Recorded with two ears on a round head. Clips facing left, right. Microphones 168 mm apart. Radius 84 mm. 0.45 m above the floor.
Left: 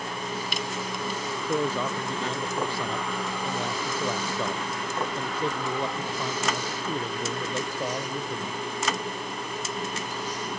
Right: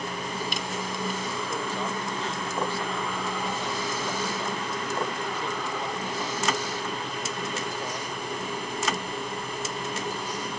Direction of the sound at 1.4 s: 70° left (ahead or behind).